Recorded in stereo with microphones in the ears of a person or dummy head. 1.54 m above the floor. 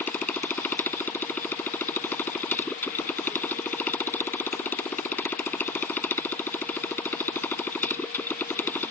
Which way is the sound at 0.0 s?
10° left (ahead or behind).